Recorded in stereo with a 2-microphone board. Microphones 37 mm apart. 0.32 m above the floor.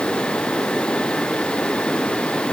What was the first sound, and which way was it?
Only background noise.